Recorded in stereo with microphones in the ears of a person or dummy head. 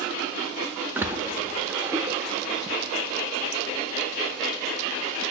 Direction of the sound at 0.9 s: 10° right (ahead or behind).